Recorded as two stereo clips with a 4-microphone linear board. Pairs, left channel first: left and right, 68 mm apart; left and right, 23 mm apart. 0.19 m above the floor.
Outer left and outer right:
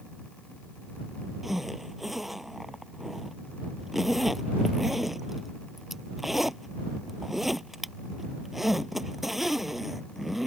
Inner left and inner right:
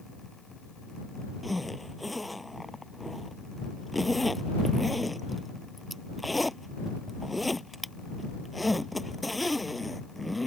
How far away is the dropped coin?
I don't hear a dropped coin.